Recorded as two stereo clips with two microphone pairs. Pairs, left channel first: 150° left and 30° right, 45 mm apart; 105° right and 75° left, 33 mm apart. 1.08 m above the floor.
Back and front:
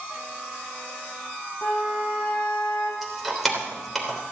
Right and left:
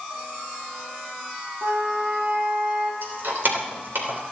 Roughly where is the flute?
Left.